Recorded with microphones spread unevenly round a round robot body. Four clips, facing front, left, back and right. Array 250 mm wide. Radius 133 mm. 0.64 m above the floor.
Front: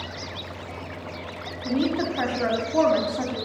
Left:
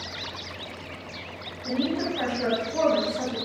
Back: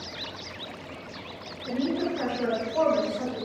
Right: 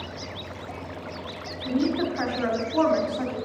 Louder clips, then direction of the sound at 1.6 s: Right 2 dB, front 3 dB; 15° left.